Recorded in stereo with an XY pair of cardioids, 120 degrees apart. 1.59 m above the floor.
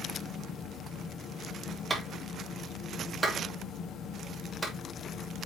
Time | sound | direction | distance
0.0 | a fan | 60° left | 1.7 m
1.9 | a clap | 10° right | 3.5 m